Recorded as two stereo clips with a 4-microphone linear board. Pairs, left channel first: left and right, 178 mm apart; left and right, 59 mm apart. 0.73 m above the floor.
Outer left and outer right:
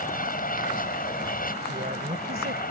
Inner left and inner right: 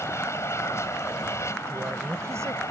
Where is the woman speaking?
60° right (ahead or behind).